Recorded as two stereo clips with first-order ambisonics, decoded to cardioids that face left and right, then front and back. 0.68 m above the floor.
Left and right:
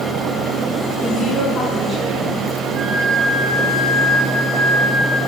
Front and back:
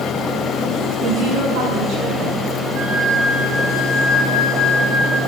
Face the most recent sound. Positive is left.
turn(degrees=-135)